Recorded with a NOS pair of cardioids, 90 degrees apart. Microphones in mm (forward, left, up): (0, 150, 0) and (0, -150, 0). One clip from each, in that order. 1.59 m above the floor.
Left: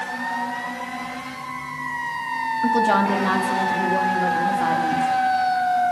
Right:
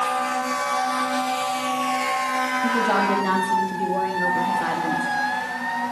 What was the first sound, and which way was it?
A woman speaking, 25° left.